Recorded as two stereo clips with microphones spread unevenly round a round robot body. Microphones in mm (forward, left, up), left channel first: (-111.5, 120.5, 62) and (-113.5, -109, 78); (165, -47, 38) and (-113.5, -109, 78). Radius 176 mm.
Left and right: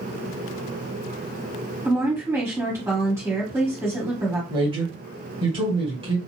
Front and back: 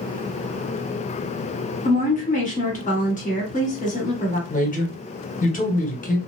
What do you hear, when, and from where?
1.9 s a woman speaking: 15° right, 1.7 m
4.5 s a man speaking: 25° right, 1.4 m